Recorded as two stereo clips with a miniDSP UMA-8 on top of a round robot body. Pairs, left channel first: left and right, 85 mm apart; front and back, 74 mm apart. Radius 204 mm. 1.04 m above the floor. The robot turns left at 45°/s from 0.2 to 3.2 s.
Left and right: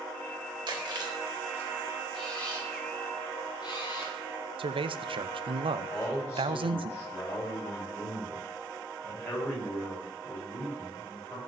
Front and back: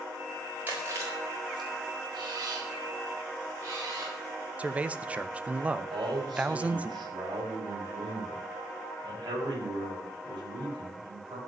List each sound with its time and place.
0.7 s chewing: 115° right, 4.5 m; by 1.7 s 165° right, 4.5 m
2.1 s a camera shutter: straight behind, 5 m; by 4.2 s 130° left, 5 m
4.6 s a man speaking: 110° right, 0.8 m
5.9 s a man speaking: 150° left, 5.5 m